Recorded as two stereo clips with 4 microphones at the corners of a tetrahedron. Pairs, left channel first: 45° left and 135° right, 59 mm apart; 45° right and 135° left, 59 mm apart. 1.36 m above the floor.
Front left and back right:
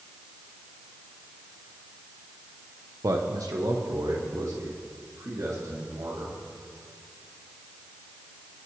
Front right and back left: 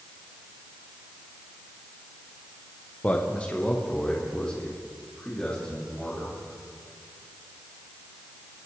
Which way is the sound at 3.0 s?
110° right.